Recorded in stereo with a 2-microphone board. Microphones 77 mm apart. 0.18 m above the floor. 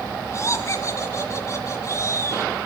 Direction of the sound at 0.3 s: 40° left (ahead or behind).